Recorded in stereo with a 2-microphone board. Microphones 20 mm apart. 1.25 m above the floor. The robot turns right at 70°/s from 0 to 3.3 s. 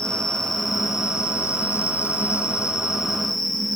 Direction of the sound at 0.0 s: 130° left.